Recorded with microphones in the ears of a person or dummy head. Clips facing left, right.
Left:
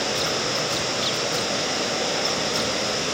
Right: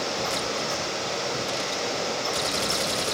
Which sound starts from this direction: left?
Running water, at 0.0 s.